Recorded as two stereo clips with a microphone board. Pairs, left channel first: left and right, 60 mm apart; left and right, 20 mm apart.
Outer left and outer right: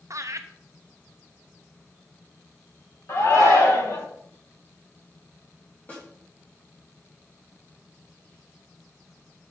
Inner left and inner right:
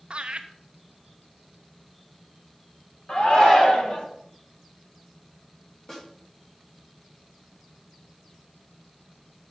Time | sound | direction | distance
0.1 | laughter | 55° right (ahead or behind) | 0.5 m
3.1 | a shout | 50° left (ahead or behind) | 1.6 m
5.9 | a snare drum | 25° left (ahead or behind) | 2.5 m